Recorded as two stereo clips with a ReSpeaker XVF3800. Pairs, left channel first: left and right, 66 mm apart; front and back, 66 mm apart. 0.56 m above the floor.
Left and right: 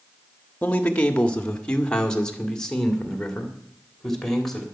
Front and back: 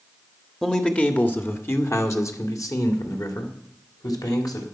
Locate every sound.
0.6 s a man speaking: 70° left, 1.1 m; by 4.7 s 5° left, 3 m